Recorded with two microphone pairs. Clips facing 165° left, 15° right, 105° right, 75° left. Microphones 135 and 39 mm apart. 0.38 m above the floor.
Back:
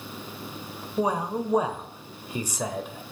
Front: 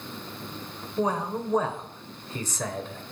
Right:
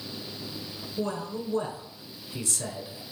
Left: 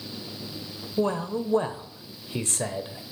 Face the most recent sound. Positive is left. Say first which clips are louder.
# back 1 dB, left 6 dB
turn(degrees=90)